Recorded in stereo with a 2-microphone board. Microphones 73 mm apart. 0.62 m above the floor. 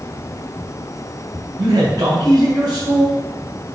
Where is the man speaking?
55° right (ahead or behind), 4 m.